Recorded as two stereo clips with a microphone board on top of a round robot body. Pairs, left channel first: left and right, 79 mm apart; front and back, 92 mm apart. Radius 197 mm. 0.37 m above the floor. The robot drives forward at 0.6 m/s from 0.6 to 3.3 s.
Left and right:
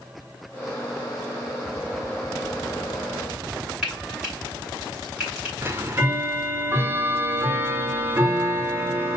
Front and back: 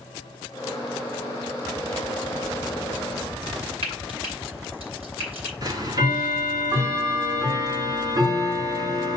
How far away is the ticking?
About 1.9 m.